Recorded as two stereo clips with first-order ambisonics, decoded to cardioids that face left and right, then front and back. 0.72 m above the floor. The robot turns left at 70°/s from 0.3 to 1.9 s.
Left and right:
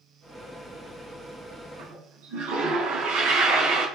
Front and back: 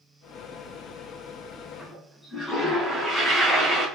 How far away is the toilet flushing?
About 3.5 m.